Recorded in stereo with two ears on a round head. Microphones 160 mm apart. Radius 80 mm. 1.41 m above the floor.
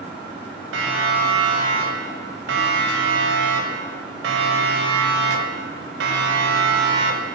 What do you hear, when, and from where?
0.7 s a siren: 75° right (ahead or behind), 7.5 m; by 7.3 s 65° right (ahead or behind), 4.5 m